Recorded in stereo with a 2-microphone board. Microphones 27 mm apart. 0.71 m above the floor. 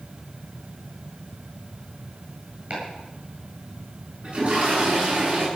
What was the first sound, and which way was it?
Chopping, 40° right (ahead or behind).